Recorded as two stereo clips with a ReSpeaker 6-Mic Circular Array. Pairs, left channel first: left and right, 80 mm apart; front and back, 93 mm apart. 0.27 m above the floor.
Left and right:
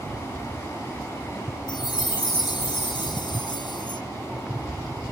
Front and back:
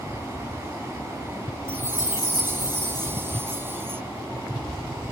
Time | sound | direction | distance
1.7 | a chime | 115° left | ?